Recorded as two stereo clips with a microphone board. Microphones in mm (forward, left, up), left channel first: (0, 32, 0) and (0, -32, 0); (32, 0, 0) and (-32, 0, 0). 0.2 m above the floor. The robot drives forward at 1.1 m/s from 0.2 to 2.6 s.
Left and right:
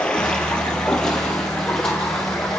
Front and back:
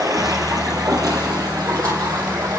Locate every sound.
0.0 s running water: 165° left, 4.5 m; by 2.6 s 170° left, 7 m